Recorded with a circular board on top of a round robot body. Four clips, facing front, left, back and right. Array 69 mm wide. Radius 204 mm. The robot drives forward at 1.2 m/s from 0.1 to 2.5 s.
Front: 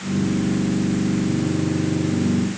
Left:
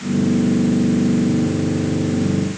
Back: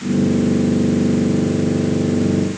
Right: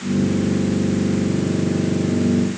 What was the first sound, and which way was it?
Only background noise.